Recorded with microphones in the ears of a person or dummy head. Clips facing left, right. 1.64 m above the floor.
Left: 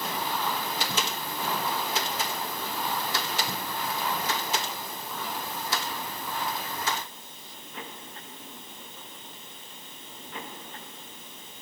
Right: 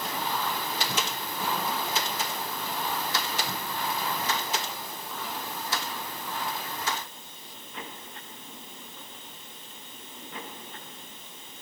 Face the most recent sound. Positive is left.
No sound to turn to.